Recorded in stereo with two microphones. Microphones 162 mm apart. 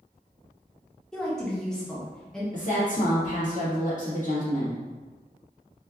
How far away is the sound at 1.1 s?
About 0.7 m.